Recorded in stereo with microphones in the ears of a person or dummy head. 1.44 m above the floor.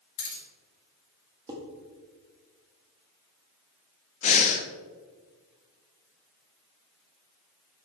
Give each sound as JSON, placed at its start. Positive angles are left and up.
{"t": 0.2, "sound": "keys jangling", "side_deg": 55, "distance_m": 3.0}
{"t": 1.5, "sound": "dishes clattering", "side_deg": -20, "distance_m": 1.7}
{"t": 4.2, "sound": "breathing", "side_deg": 35, "distance_m": 0.7}